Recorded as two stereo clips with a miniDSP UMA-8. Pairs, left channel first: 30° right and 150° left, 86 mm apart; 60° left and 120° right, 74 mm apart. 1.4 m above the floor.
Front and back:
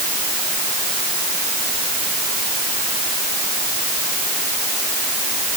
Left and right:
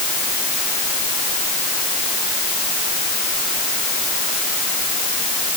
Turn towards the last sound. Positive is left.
No sound to turn to.